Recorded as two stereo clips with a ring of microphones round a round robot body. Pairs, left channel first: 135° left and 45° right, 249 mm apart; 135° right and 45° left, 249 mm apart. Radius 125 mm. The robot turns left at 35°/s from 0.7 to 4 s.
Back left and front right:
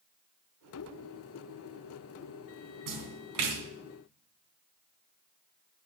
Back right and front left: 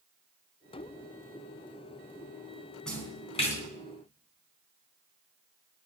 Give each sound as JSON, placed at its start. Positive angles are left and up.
{"t": 2.9, "sound": "a splash", "azimuth_deg": -50, "distance_m": 3.0}